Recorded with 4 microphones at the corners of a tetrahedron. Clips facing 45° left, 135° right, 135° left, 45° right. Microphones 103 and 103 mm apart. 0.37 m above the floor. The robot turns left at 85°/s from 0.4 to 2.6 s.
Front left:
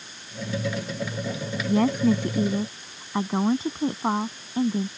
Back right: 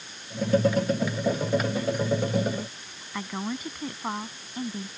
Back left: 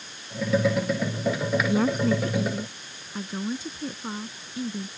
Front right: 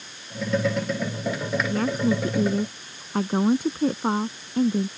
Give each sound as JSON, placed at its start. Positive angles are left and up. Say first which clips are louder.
{"t": 1.7, "sound": "a woman speaking", "louder": "front left 6 dB, even", "azimuth_deg": 65}